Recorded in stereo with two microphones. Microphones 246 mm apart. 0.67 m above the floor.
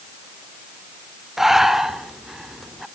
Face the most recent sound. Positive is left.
turn(degrees=0)  # may be behind; listen again after turning